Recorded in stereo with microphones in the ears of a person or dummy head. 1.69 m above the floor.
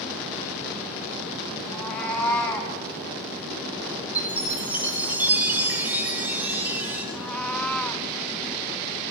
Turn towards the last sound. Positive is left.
turn(degrees=5)  # may be behind; listen again after turning